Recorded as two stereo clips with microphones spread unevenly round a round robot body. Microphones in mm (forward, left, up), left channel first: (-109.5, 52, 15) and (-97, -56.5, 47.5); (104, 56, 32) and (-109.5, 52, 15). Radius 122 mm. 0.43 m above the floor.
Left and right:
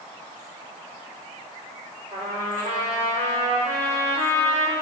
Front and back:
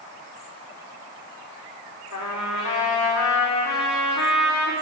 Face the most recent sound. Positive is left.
turn(degrees=-5)